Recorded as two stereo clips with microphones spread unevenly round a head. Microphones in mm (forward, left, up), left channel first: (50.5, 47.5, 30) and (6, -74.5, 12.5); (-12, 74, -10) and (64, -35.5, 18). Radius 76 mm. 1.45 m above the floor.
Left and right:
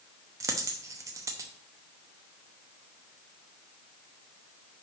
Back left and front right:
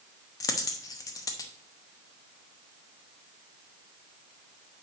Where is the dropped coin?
175° right, 0.8 m.